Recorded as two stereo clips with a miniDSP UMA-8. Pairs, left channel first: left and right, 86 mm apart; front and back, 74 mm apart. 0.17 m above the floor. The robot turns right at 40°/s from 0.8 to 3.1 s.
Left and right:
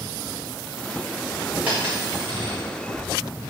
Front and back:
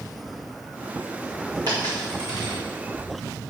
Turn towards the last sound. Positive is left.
turn(degrees=-100)